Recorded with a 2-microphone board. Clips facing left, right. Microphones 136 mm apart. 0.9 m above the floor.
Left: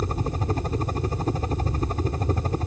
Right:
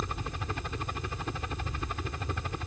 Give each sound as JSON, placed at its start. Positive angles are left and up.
{"t": 0.0, "sound": "a helicopter", "side_deg": 40}